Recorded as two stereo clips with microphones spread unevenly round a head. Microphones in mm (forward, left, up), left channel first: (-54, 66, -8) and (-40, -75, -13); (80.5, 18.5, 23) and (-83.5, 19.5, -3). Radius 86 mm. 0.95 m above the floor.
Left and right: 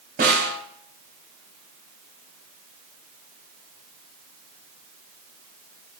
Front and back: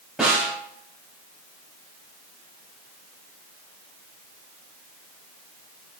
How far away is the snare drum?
About 4.5 m.